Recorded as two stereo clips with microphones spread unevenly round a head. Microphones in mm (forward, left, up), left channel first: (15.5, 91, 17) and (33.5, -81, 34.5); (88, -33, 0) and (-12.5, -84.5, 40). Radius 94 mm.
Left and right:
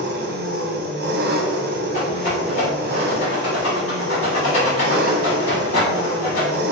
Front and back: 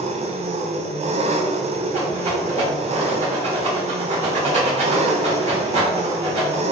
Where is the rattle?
150° left, 1.8 m.